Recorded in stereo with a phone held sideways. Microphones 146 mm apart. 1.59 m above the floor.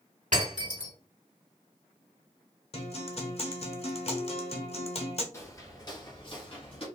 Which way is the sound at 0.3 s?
65° right (ahead or behind).